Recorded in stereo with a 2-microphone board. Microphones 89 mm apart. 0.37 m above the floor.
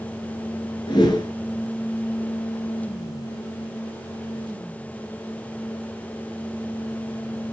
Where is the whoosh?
55° left (ahead or behind), 1.9 m.